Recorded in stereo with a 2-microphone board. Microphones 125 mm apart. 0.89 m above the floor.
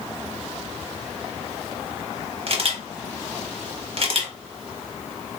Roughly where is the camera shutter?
Right.